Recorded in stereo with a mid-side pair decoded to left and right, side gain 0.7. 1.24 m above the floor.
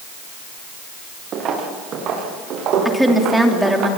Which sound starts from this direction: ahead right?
Footsteps, at 1.3 s.